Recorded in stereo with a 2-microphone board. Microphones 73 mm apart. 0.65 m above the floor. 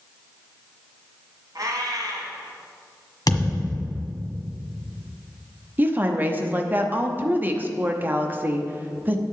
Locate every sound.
1.6 s a cat meowing: 65° right (ahead or behind), 1.6 m
3.3 s a thud: 70° left (ahead or behind), 1.5 m
5.8 s a woman speaking: 25° right (ahead or behind), 0.7 m